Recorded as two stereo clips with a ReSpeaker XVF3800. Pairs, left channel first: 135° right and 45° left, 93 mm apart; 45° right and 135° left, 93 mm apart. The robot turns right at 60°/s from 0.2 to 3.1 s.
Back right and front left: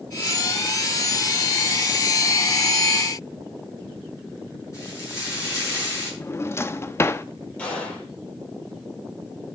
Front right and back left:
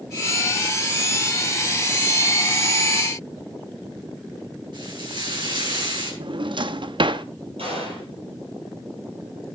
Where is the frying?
170° left, 7.5 m.